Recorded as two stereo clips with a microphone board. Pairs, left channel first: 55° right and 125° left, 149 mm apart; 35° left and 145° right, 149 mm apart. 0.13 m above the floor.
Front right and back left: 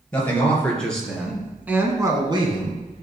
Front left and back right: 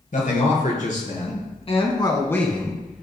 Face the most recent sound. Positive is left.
turn(degrees=140)